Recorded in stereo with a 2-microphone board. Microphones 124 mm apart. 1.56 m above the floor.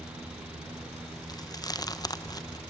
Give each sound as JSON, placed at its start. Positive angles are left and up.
{"t": 1.3, "sound": "chewing", "side_deg": 30, "distance_m": 0.9}